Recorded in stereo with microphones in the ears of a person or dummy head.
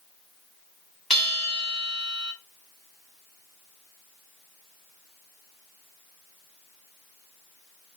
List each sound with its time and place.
1.1 s a bell: 5° right (ahead or behind), 1.8 m